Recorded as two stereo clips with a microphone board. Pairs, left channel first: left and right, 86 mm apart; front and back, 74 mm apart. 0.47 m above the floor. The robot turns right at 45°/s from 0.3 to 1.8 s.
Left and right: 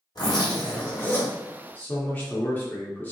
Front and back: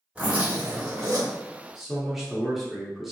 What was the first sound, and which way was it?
A zipper, 110° left.